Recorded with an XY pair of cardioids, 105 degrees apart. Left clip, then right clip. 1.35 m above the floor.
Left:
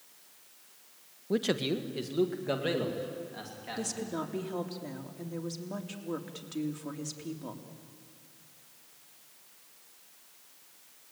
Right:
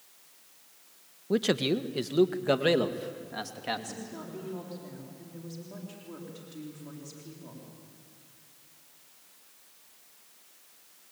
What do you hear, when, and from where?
1.3 s a man speaking: 15° right, 1.1 m; by 4.0 s 60° right, 3 m
3.8 s a woman speaking: 55° left, 3.5 m